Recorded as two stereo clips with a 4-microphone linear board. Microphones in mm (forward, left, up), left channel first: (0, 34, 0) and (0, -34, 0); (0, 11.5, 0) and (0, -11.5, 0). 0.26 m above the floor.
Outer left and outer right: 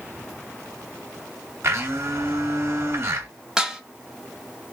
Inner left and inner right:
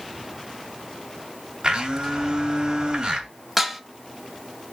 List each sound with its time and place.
1.6 s a blender: 40° right (ahead or behind), 2 m
3.6 s dishes clattering: 10° right (ahead or behind), 0.8 m